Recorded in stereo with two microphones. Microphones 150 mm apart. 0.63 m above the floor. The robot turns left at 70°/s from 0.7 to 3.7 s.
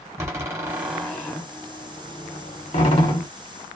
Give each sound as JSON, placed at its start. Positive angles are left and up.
{"t": 0.2, "sound": "a door slam", "side_deg": -20, "distance_m": 1.1}